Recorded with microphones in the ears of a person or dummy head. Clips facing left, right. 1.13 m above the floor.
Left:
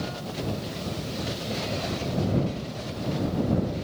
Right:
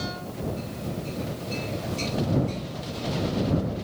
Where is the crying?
No crying in this recording.